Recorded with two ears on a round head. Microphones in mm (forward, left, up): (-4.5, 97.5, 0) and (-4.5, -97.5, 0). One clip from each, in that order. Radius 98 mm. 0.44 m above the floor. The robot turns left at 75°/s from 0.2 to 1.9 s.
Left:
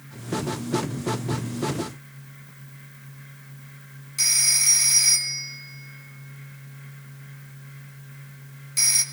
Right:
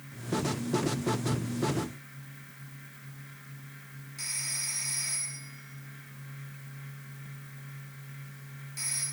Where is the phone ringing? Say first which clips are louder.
Left 15 dB; 45° left (ahead or behind), 2 m.